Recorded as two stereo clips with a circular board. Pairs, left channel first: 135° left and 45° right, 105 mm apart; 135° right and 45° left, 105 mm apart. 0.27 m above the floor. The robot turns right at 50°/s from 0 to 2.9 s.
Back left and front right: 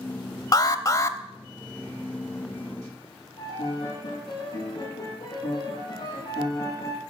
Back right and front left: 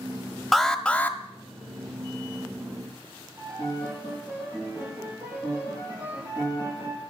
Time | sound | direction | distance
0.5 | an alarm | 140° left | 0.8 m
3.4 | a piano | 110° left | 8.5 m